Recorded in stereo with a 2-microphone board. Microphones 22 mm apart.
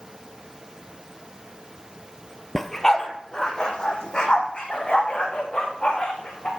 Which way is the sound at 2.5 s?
10° left (ahead or behind).